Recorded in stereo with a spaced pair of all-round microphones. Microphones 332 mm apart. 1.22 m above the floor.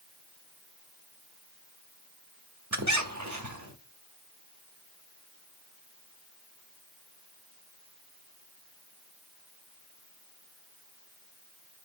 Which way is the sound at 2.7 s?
55° right (ahead or behind).